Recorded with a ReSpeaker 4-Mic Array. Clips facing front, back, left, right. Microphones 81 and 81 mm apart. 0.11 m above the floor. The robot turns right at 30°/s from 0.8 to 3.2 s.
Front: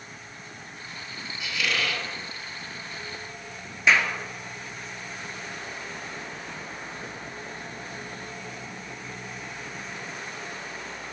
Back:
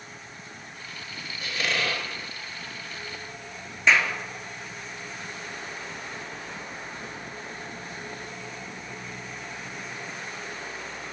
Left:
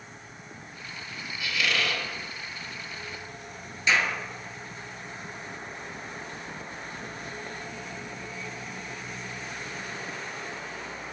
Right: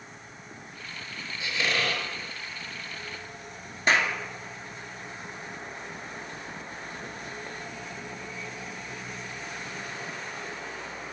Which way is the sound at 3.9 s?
85° right.